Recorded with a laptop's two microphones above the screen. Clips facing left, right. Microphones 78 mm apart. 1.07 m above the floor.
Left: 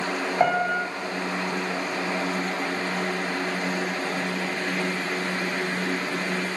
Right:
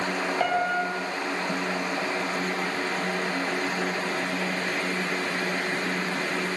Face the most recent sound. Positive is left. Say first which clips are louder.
# left 4 dB
turn(degrees=20)  # may be behind; listen again after turning